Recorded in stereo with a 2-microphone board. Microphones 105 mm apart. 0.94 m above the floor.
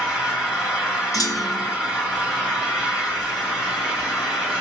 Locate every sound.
0.0 s an engine running: 10° right (ahead or behind), 2.5 m
1.1 s a clunk: 35° left (ahead or behind), 0.8 m